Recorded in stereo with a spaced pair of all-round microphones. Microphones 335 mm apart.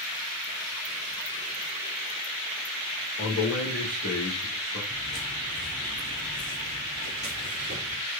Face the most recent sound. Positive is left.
turn(degrees=45)  # may be behind; listen again after turning